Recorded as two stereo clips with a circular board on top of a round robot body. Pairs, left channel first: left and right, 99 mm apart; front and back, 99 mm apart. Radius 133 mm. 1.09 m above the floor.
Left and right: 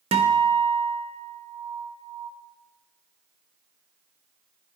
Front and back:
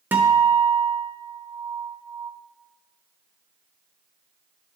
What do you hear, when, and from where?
0.1 s a guitar: 105° right, 0.5 m